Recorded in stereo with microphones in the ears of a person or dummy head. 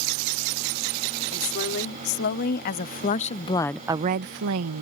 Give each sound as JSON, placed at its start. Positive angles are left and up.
{"t": 1.3, "sound": "a woman speaking", "side_deg": 60}